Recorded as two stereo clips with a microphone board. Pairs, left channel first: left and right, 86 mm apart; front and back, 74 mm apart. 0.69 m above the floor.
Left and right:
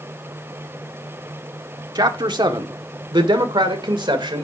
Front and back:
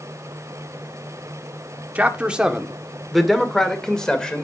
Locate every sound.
1.9 s a man speaking: 115° right, 1.4 m; by 4.5 s 80° right, 2.5 m